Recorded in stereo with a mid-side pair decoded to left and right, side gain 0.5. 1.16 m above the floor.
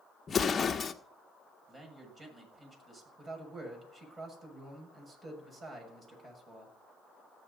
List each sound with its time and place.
0.3 s an explosion: 35° left, 1.2 m
1.7 s a man speaking: 30° right, 7 m
3.2 s a man speaking: 35° right, 6.5 m